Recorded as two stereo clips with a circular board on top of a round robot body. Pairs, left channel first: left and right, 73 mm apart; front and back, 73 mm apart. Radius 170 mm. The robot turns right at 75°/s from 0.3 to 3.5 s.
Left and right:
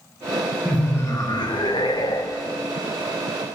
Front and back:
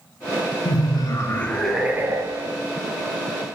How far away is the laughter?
About 0.6 m.